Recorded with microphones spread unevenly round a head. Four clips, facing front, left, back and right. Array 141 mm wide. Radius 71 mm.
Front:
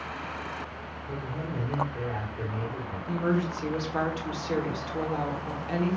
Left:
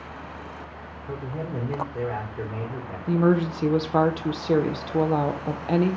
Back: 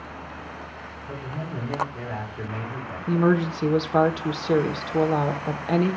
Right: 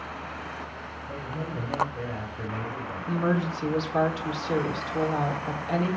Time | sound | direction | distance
1.1 | a man speaking | 95° left | 4.5 m
3.1 | a woman speaking | 130° left | 1.2 m